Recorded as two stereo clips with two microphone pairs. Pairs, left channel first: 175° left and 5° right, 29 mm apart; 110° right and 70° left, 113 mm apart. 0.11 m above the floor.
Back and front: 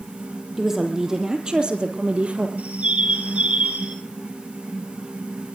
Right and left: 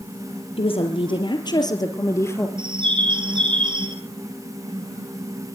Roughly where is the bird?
Ahead left.